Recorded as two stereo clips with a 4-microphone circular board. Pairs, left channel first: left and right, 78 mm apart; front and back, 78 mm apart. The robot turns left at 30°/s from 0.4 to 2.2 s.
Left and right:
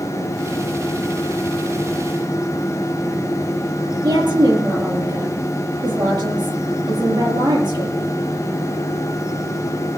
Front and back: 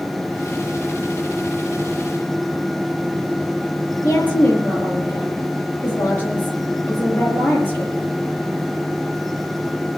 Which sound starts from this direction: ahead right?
A woman speaking, at 4.0 s.